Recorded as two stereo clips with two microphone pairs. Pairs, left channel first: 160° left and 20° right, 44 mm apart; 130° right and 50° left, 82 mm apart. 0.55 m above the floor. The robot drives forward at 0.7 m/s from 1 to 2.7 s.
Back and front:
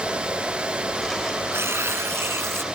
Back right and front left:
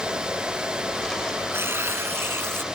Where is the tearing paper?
5° right; by 2.6 s 10° right.